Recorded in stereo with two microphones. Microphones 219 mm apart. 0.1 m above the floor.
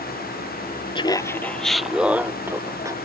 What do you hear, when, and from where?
0.9 s laughter: 20° left (ahead or behind); by 3.0 s 15° right (ahead or behind)